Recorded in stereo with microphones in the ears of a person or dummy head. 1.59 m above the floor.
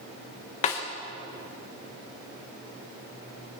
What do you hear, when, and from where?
0.6 s a snare drum: 35° left (ahead or behind), 1.1 m